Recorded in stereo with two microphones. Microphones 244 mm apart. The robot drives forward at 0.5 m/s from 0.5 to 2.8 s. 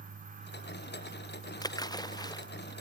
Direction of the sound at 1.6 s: 15° left (ahead or behind).